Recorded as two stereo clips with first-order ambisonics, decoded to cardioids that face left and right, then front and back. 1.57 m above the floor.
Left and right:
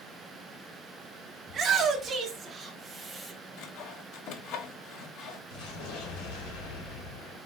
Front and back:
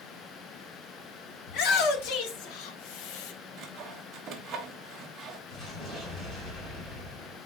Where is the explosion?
85° left, 4 m.